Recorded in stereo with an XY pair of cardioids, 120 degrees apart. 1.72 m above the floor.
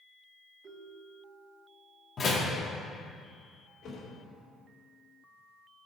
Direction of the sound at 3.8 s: 55° left.